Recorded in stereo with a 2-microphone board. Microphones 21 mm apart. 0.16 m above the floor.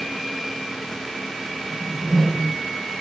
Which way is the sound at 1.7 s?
50° right (ahead or behind).